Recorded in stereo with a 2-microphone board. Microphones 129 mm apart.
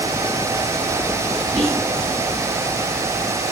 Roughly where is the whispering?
Centre.